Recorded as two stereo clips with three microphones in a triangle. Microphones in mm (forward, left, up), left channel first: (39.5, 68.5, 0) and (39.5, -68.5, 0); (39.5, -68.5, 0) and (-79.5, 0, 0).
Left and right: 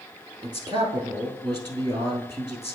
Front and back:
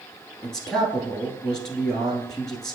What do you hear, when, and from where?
0.4 s a man speaking: 115° right, 1.3 m